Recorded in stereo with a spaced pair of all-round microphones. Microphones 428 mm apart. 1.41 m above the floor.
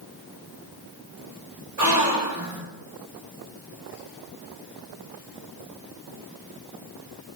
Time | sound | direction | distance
1.8 | a gasp | 40° right (ahead or behind) | 1.4 m